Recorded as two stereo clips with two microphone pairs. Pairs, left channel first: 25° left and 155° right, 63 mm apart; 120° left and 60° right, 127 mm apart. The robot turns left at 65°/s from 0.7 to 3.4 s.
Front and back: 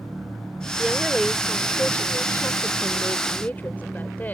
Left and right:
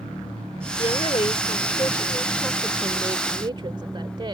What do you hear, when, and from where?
0.8 s a woman speaking: 145° left; by 4.3 s 25° right